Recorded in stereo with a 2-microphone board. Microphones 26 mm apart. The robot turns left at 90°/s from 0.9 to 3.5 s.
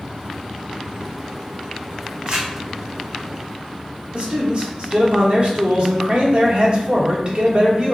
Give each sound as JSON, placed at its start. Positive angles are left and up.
{"t": 2.3, "sound": "crumpling", "side_deg": -45, "distance_m": 1.6}
{"t": 4.1, "sound": "a man speaking", "side_deg": -45, "distance_m": 1.1}